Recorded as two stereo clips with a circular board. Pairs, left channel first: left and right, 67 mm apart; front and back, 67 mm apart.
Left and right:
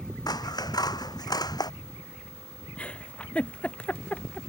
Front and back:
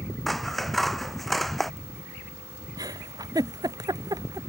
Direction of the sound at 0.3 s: 90° left.